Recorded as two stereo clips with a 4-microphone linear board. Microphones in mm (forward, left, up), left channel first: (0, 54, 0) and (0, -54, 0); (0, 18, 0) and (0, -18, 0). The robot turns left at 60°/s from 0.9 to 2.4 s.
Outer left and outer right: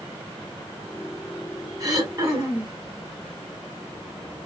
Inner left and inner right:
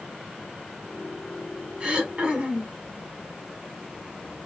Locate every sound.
1.8 s throat clearing: 60° right, 1.2 m; by 2.8 s 95° right, 1.2 m